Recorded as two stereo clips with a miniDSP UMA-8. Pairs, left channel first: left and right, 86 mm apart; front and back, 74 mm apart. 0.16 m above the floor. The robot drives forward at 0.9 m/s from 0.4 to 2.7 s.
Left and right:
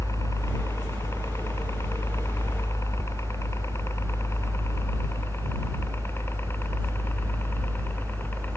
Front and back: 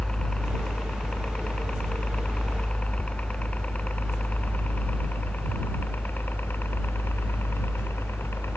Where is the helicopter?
70° left; by 8.6 s 35° left.